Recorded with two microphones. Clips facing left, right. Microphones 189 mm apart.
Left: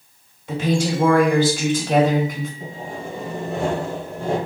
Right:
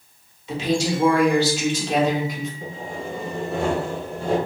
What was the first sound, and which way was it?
A woman speaking, 50° left (ahead or behind).